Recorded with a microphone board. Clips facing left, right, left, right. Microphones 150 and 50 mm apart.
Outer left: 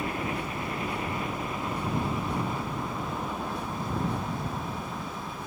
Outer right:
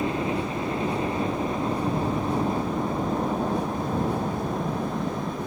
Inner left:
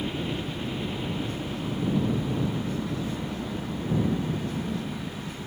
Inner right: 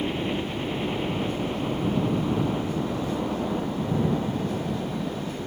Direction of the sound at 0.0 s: 25° right (ahead or behind).